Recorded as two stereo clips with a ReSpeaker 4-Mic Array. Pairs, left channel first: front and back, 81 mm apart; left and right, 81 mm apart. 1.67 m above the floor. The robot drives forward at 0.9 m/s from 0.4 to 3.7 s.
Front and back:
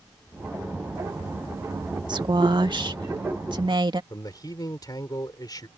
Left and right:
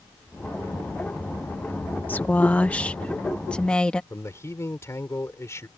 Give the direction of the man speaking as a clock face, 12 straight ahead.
11 o'clock.